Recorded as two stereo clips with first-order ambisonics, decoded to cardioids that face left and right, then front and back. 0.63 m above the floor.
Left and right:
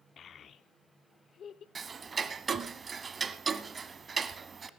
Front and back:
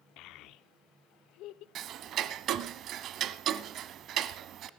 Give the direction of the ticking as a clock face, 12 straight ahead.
5 o'clock.